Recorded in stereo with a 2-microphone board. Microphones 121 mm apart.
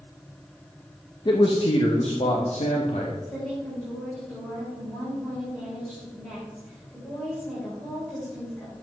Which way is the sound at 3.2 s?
10° left (ahead or behind).